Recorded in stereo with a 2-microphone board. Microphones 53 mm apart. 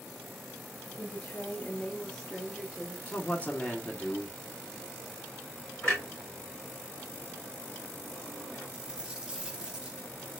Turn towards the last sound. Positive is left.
turn(degrees=-15)  # may be behind; listen again after turning